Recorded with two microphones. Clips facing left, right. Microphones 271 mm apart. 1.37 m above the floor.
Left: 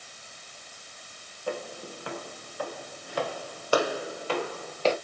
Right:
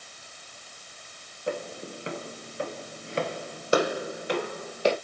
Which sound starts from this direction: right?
Footsteps, at 1.5 s.